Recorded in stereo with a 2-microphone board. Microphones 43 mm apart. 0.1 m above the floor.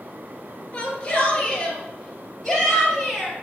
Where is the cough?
I don't hear a cough.